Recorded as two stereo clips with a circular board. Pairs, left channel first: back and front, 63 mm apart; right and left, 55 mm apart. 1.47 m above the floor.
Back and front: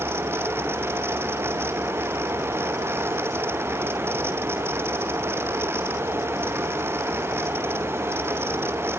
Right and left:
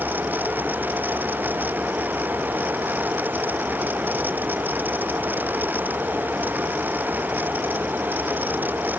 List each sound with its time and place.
Only background noise.